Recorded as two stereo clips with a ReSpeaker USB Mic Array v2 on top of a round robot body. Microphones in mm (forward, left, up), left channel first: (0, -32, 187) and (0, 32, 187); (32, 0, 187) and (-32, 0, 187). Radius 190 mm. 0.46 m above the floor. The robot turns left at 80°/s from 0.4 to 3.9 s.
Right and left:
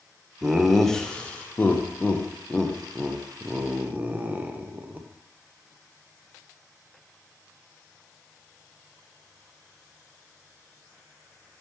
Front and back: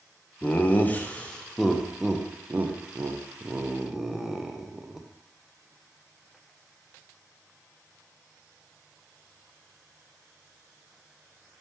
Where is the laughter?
25° left, 0.7 m; by 5.1 s 105° left, 0.7 m.